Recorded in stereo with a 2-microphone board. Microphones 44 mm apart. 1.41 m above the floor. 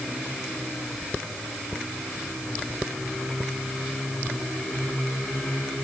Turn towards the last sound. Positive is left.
No sound to turn to.